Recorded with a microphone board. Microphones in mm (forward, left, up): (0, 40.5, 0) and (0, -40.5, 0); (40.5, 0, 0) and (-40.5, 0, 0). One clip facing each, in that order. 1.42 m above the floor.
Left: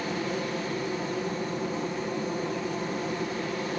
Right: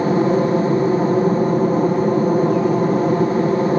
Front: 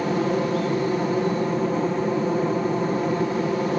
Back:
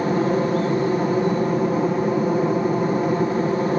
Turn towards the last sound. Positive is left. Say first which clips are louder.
# right 15 dB, back 3 dB
turn(degrees=-100)